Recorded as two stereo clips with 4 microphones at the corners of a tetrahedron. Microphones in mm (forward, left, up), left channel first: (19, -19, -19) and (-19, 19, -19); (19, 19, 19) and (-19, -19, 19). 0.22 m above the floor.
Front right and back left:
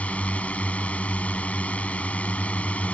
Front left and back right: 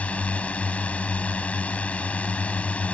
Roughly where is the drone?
Ahead.